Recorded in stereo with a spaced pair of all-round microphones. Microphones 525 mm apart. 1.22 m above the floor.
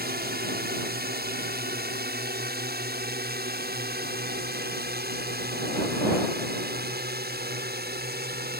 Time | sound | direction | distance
0.0 | a drone | 15° right (ahead or behind) | ?